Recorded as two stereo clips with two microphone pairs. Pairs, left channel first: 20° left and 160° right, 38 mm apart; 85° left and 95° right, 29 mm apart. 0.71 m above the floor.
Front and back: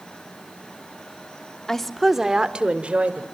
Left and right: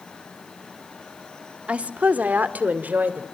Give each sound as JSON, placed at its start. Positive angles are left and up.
{"t": 1.7, "sound": "a woman speaking", "azimuth_deg": -55, "distance_m": 1.3}